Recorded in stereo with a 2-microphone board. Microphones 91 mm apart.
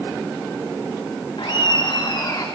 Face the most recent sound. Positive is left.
turn(degrees=45)  # may be behind; listen again after turning